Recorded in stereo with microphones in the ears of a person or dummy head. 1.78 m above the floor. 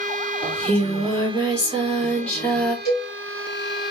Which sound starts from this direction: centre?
Singing, at 0.4 s.